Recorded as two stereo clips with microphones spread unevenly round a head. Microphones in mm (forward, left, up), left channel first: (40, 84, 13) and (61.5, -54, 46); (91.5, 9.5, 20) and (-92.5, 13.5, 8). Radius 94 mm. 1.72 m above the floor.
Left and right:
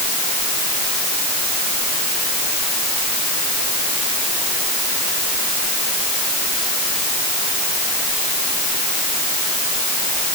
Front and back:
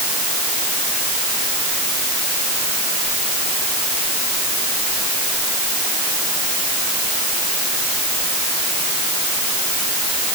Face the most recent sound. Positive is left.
No sound to turn to.